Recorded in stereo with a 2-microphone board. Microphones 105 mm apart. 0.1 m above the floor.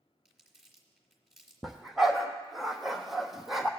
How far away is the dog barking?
About 1.0 m.